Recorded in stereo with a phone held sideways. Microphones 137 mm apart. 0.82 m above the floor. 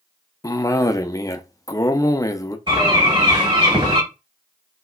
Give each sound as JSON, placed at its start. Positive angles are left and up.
{"t": 0.4, "sound": "a cough", "side_deg": 25, "distance_m": 0.5}
{"t": 2.7, "sound": "a bird", "side_deg": -35, "distance_m": 1.9}